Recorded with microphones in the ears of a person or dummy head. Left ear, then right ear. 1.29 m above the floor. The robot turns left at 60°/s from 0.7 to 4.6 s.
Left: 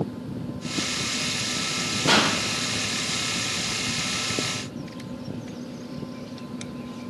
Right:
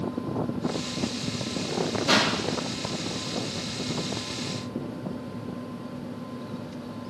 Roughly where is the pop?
Left.